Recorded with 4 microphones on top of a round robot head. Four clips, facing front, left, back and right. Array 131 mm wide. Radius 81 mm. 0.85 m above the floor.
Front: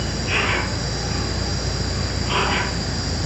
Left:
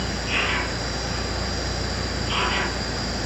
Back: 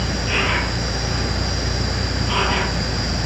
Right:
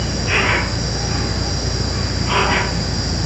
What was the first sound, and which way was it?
An insect, 85° right.